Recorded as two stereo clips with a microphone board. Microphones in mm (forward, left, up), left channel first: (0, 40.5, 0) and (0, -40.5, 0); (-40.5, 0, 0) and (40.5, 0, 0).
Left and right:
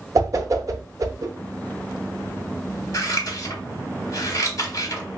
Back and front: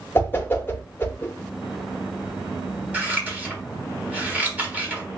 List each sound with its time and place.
0.1 s a whoosh: 125° right, 0.5 m
2.9 s scissors: 65° left, 1.3 m